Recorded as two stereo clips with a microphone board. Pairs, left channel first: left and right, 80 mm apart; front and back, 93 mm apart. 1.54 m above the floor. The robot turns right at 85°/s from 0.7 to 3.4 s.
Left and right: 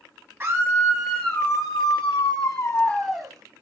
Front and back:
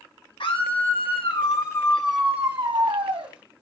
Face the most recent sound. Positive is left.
turn(degrees=-150)